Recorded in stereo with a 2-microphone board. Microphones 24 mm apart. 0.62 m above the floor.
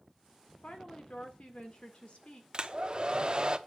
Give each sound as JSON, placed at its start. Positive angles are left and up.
{"t": 0.6, "sound": "a woman speaking", "side_deg": 60, "distance_m": 2.0}
{"t": 2.5, "sound": "a hair dryer", "side_deg": -40, "distance_m": 0.8}